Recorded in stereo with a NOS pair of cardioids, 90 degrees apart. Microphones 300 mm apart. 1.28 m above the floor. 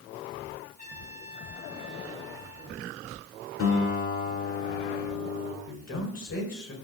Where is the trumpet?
35° left, 10 m.